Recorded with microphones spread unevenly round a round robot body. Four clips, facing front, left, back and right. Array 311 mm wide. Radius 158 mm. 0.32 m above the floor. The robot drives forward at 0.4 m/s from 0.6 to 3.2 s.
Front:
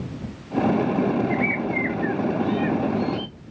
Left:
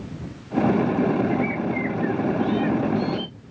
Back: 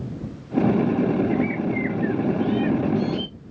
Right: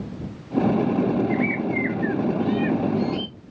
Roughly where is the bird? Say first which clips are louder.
Even, back 1 dB; behind right.